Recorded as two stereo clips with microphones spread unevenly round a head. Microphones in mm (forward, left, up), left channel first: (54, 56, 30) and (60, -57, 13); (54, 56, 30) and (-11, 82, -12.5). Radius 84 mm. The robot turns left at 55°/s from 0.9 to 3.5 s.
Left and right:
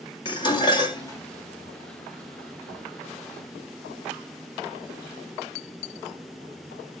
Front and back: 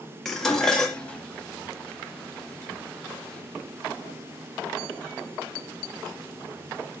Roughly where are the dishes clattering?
Ahead left.